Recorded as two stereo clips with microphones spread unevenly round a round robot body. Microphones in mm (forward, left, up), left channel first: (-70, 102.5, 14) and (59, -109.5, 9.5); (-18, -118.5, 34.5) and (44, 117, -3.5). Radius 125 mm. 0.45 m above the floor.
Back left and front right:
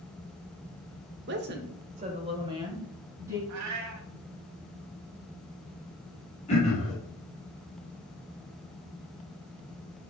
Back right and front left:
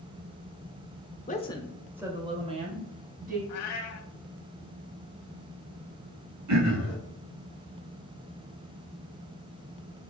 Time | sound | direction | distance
1.3 | a woman speaking | 50° right | 1.1 m
3.5 | a cat meowing | 80° right | 1.2 m
6.5 | throat clearing | 55° left | 3 m